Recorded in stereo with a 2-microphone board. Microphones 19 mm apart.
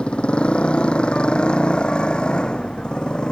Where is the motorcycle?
70° left (ahead or behind); by 3.3 s 50° left (ahead or behind).